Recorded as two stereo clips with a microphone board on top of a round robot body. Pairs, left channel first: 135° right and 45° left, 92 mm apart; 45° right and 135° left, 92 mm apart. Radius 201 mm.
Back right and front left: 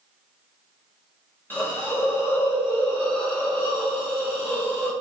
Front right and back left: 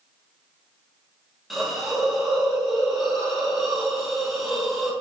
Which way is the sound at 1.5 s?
145° right.